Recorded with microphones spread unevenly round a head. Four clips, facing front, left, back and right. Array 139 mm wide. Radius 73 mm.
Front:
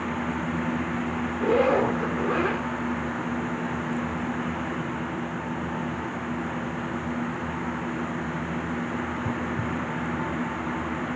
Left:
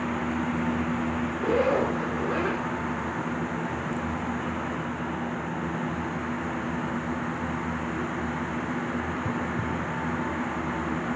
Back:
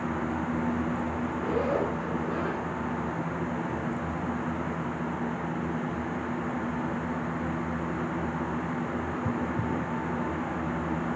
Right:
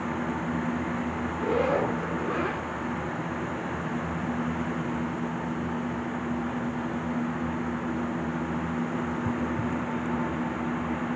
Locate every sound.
1.4 s a zipper: 10° right, 2.5 m